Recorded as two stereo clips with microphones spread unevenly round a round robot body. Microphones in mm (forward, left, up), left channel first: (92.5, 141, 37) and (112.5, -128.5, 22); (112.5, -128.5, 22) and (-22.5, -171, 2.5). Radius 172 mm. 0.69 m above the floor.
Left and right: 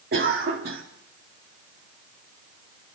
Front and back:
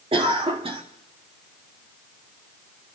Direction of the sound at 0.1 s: 135° right.